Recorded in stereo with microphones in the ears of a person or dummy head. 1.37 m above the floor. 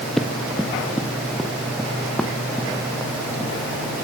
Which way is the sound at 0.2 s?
Centre (ahead or behind).